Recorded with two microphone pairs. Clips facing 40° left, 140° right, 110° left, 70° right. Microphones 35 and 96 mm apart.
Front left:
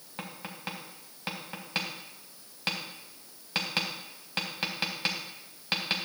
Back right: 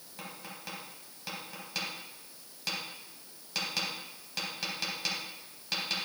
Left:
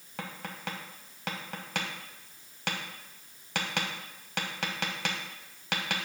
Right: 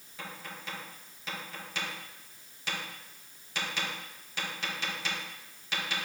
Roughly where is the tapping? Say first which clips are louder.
Front left 4 dB, left 4 dB; left.